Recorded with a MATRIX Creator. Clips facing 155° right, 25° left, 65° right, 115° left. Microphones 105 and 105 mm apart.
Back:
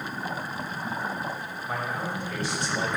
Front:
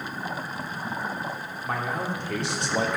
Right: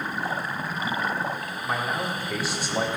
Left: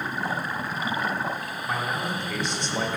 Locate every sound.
1.6 s a man speaking: 20° left, 3 m; by 3.0 s 10° left, 1.3 m